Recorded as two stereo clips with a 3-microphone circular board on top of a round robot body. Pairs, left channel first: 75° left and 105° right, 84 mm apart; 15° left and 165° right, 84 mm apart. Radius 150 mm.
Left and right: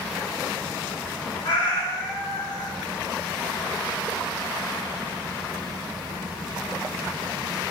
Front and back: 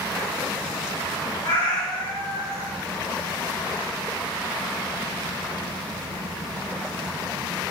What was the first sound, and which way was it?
A cat meowing, 40° left.